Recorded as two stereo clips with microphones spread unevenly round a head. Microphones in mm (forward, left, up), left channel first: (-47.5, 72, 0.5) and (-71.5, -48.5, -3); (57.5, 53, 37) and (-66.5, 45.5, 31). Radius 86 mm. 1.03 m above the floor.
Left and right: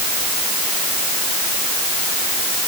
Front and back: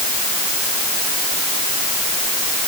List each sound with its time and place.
Only background noise.